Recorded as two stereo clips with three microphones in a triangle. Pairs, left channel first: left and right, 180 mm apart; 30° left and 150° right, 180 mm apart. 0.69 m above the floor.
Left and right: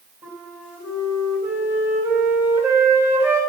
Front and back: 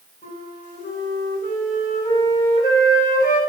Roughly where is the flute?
Ahead.